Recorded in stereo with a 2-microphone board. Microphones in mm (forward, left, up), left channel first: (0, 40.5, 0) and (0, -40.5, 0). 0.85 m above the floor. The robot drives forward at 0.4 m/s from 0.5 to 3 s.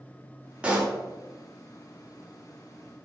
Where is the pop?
15° right (ahead or behind), 0.6 m; by 1.0 s 20° right (ahead or behind), 0.5 m.